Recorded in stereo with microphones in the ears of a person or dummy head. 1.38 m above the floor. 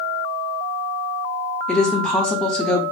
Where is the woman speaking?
5° left (ahead or behind), 0.6 m.